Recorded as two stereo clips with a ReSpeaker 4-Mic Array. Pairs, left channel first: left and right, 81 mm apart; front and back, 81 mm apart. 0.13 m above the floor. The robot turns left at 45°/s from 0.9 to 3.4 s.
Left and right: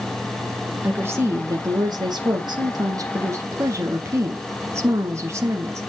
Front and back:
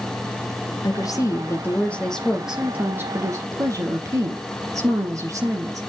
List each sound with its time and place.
0.8 s a woman speaking: 25° right, 3 m; by 5.8 s 140° right, 3 m